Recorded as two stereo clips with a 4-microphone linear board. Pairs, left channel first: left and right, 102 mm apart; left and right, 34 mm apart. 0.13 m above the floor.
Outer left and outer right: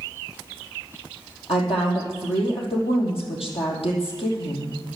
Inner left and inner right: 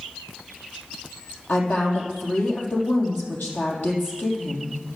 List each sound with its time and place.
1.5 s a woman speaking: 70° left (ahead or behind), 4.5 m